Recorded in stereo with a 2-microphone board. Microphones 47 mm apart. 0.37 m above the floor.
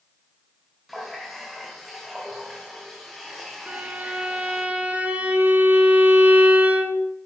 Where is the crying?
I don't hear crying.